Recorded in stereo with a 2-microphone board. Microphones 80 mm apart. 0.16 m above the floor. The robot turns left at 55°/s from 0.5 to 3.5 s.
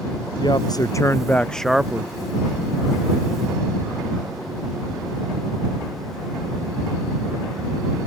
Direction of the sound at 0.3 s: 65° left.